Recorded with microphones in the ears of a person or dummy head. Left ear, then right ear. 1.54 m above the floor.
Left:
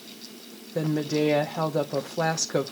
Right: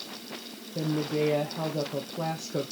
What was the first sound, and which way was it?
A woman speaking, 70° left (ahead or behind).